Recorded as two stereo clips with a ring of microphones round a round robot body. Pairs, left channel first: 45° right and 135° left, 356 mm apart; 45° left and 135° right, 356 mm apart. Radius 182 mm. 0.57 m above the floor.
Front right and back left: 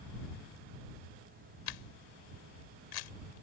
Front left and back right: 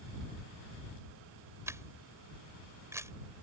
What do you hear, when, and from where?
1.7 s a camera shutter: 55° right